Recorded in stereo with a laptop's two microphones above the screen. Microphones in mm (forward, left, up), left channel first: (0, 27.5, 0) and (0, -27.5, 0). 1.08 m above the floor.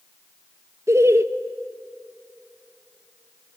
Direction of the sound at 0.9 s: 60° right (ahead or behind).